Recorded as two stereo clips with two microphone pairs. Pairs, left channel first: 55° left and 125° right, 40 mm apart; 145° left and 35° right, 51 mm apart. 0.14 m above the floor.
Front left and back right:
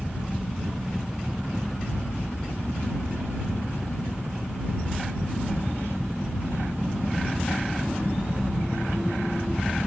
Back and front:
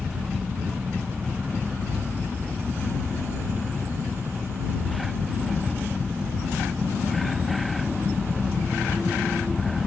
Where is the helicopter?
50° right; by 9.9 s 75° right.